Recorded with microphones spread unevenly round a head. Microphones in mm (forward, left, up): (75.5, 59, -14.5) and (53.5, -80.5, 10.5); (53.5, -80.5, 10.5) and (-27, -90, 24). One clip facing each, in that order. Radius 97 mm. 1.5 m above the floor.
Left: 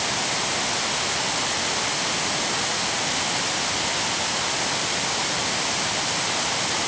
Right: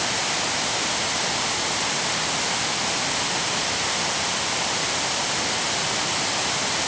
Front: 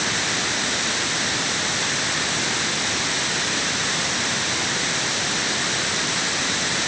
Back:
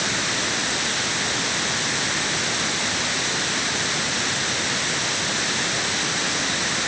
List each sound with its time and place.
Only background noise.